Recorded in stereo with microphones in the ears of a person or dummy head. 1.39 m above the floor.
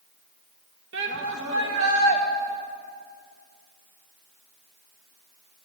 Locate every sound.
0.9 s a shout: 60° right (ahead or behind), 2 m; by 2.2 s 80° right, 2 m